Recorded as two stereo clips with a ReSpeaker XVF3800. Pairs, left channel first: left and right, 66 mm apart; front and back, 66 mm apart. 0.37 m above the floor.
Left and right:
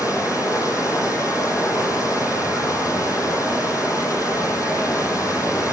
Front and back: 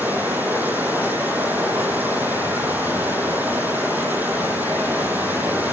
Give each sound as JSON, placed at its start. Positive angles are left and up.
{"t": 0.0, "sound": "running water", "azimuth_deg": 120, "distance_m": 8.5}